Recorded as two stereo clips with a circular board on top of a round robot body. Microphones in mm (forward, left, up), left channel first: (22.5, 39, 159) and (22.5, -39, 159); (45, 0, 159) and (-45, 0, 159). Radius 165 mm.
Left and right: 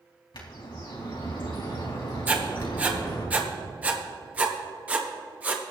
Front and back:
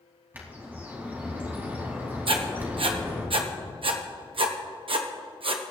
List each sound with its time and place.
0.3 s a bird: 110° left, 3 m
2.3 s writing: 160° right, 1.1 m